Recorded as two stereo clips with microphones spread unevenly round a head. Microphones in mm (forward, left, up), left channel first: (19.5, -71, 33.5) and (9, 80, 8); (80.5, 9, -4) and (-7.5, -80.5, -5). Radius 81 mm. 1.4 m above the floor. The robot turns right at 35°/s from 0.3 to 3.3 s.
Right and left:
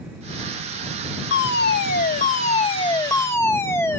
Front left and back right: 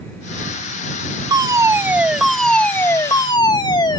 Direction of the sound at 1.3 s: 80° right.